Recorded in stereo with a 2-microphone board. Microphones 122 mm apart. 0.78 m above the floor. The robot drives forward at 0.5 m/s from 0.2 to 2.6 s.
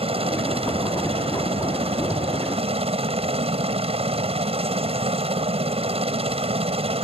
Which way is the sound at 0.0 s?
50° right (ahead or behind).